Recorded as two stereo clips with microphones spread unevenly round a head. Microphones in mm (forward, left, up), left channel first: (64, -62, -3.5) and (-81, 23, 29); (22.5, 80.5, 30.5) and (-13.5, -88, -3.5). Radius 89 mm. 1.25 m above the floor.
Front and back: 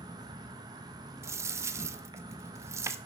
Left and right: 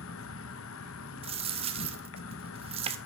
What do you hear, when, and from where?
0.0 s an insect: 80° left, 0.9 m
1.2 s a dropped coin: 160° right, 0.6 m